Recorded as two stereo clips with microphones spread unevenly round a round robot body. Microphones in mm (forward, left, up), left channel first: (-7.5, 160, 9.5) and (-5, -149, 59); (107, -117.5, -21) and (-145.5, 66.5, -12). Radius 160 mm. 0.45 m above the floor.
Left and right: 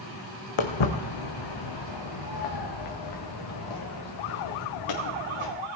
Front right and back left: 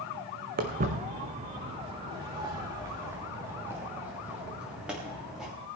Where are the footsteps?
80° left, 1.7 m; by 5.5 s 55° left, 4 m.